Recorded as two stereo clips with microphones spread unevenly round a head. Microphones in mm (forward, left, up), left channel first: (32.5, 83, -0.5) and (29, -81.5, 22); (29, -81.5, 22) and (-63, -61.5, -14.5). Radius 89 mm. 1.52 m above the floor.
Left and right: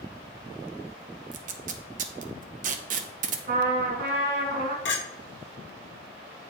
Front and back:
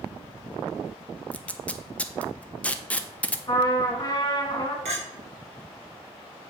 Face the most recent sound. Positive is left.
turn(degrees=115)